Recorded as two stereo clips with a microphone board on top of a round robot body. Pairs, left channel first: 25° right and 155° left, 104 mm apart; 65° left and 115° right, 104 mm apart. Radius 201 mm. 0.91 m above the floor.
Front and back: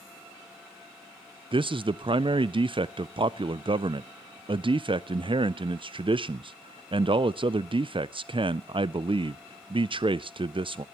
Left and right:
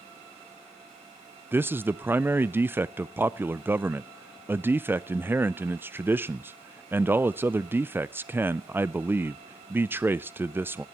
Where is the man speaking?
Straight behind, 0.5 m.